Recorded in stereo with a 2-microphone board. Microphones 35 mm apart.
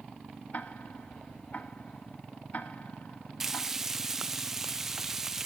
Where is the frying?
10° right (ahead or behind), 0.6 m.